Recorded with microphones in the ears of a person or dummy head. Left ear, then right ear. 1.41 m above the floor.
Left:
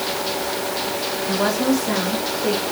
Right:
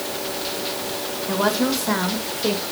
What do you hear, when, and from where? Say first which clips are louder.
1.3 s a woman speaking: even; 5° right (ahead or behind), 1.9 m; by 2.6 s 55° right (ahead or behind), 2 m